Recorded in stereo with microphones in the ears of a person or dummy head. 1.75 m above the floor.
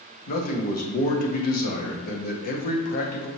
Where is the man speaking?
45° left (ahead or behind), 0.6 m.